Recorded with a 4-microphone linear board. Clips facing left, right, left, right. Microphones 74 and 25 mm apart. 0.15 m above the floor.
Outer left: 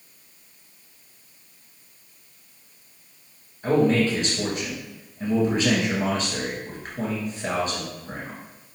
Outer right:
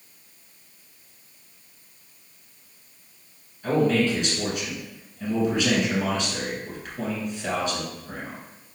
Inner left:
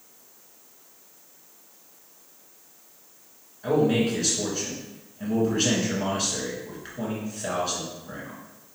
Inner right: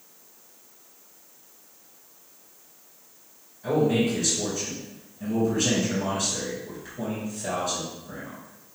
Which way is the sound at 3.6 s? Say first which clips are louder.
Outer left 2 dB, inner left 1 dB; 35° left (ahead or behind).